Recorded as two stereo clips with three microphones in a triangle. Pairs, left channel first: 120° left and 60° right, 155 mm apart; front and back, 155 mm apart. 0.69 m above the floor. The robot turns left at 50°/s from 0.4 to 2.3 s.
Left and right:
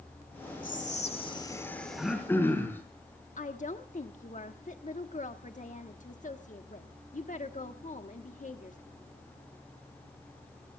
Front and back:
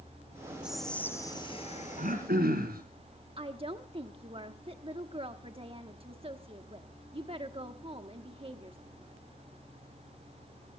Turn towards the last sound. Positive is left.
turn(degrees=135)